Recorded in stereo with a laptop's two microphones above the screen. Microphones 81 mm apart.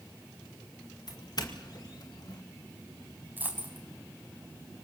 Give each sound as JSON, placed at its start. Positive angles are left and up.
{"t": 1.1, "sound": "a doorbell", "side_deg": 55, "distance_m": 2.0}
{"t": 3.4, "sound": "a dropped coin", "side_deg": -25, "distance_m": 4.0}